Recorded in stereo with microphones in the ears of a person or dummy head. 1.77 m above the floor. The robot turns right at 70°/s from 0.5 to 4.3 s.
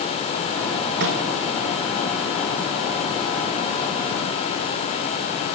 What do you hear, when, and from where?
1.0 s a microwave: 50° right (ahead or behind), 6 m; by 1.2 s 65° right (ahead or behind), 6 m